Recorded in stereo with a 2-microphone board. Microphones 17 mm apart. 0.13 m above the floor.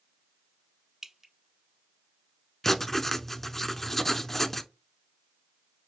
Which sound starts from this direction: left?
Writing, at 2.6 s.